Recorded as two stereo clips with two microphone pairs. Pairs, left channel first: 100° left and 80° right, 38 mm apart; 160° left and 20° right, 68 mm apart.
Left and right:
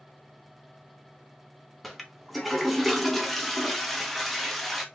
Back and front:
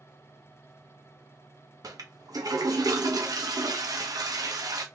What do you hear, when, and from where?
1.8 s a toilet flushing: 10° left, 0.9 m